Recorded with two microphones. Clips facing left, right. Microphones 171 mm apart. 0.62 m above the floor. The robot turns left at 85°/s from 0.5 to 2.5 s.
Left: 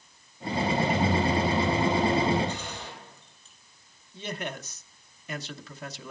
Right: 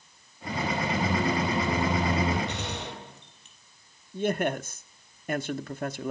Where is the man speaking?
50° right (ahead or behind), 0.7 m.